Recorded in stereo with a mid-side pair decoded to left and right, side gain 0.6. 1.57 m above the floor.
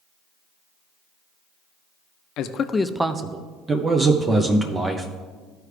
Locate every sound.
2.4 s a man speaking: 65° left, 0.7 m; by 3.5 s 40° right, 1.0 m
3.7 s a man speaking: 25° right, 0.7 m